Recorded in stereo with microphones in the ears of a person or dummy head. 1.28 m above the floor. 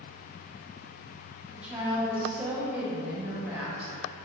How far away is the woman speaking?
About 0.6 m.